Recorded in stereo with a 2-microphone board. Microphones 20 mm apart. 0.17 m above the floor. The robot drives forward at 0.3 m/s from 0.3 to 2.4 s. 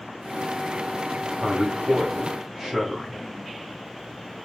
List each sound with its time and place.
1.4 s a man speaking: 25° right (ahead or behind), 1.5 m